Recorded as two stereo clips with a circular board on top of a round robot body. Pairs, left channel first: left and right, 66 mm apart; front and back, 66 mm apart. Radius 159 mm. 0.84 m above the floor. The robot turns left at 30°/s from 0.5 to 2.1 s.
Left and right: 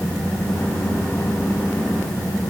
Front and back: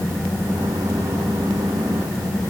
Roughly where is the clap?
I don't hear a clap.